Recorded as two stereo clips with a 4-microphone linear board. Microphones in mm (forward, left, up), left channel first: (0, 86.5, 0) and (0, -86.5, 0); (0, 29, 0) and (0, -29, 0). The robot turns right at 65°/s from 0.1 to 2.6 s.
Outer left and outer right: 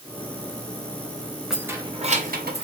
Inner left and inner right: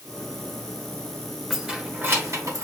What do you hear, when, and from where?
1.5 s keys jangling: centre (ahead or behind), 0.6 m; by 2.6 s 70° right (ahead or behind), 0.6 m